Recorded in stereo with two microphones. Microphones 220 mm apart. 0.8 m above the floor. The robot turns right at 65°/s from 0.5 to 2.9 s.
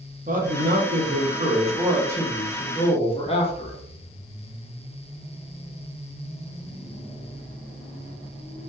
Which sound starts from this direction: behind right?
A man speaking, at 0.3 s.